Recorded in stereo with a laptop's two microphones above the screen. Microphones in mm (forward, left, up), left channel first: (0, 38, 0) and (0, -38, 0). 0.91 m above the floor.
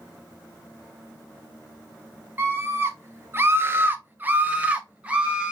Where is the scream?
25° right (ahead or behind), 0.7 m; by 5.5 s 15° right (ahead or behind), 1.4 m.